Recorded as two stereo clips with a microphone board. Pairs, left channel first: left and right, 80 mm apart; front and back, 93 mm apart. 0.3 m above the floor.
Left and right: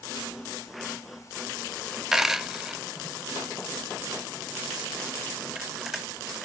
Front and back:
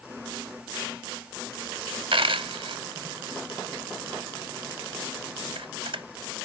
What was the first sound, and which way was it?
A dropped coin, 175° right.